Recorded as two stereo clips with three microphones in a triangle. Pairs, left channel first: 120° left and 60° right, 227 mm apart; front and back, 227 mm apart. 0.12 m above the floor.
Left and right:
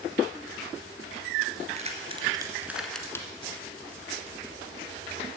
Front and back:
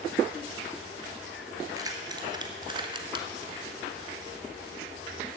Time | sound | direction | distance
1.8 | keys jangling | 110° right | 1.6 m